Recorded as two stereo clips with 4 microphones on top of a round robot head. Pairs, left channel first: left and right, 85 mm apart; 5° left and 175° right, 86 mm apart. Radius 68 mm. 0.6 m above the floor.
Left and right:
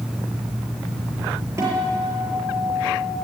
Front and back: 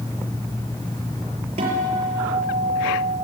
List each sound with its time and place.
1.6 s a guitar: 155° right, 6.5 m